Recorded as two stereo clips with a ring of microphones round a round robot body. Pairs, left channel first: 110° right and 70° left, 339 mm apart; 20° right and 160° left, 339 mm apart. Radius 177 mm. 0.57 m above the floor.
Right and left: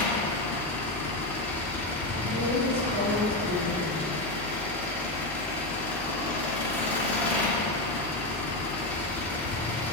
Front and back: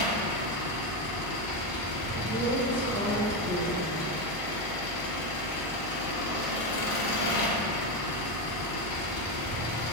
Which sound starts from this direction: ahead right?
An engine running, at 0.0 s.